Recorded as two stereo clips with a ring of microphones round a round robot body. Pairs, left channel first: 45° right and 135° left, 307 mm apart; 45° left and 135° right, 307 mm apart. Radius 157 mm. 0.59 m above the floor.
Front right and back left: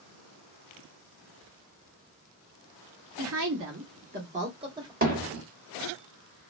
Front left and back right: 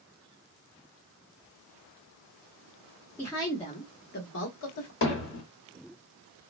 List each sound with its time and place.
3.2 s a woman speaking: 125° left, 1.1 m; by 4.9 s 60° left, 1.1 m
5.0 s hammering: 80° left, 1.3 m